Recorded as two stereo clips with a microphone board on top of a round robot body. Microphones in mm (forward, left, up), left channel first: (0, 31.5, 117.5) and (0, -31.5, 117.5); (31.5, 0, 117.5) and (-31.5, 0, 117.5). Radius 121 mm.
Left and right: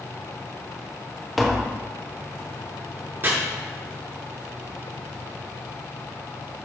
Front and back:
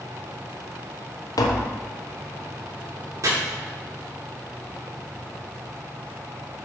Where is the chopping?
145° right, 2.5 m.